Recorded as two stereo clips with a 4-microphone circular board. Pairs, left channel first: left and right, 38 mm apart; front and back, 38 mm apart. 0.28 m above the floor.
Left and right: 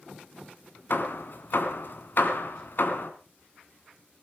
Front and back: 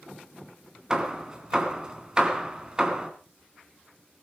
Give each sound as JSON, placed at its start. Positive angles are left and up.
{"t": 0.9, "sound": "hammering", "azimuth_deg": 110, "distance_m": 2.0}